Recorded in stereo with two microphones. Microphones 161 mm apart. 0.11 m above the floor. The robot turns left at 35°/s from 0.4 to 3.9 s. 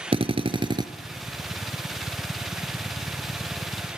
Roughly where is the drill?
Right.